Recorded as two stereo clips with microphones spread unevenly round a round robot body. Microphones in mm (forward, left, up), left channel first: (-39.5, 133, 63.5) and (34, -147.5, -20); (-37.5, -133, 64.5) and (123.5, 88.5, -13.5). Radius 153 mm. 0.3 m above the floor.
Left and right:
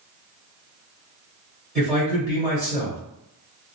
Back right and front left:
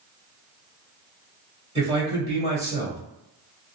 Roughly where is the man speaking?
Ahead.